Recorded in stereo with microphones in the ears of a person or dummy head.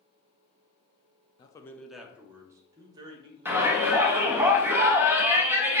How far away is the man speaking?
About 0.5 m.